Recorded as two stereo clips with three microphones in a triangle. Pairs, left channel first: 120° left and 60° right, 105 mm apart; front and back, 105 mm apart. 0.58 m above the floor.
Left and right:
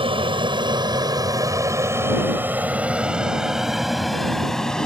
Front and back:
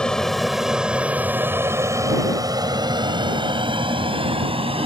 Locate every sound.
0.0 s an aircraft: 85° right; by 4.9 s 155° right